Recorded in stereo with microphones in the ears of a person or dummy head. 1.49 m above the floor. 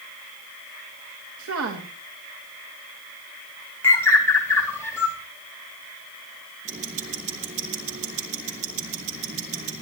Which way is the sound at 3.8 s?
15° left (ahead or behind).